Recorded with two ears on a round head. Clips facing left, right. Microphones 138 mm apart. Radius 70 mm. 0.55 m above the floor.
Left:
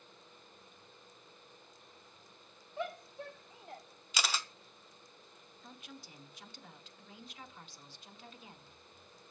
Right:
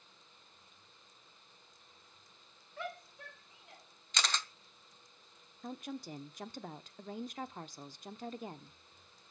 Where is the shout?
15° left (ahead or behind), 2.5 m; by 3.8 s 35° left (ahead or behind), 1.8 m.